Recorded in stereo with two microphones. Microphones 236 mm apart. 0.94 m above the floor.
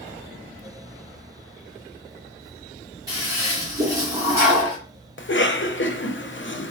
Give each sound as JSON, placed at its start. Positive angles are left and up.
{"t": 3.1, "sound": "a toilet flushing", "side_deg": -15, "distance_m": 2.5}
{"t": 5.2, "sound": "a cough", "side_deg": 55, "distance_m": 0.6}